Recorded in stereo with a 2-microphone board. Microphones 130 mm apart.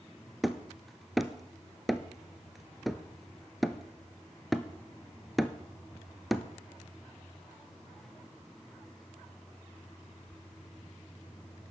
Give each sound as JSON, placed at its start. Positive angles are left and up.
{"t": 0.4, "sound": "hammering", "side_deg": 0, "distance_m": 0.7}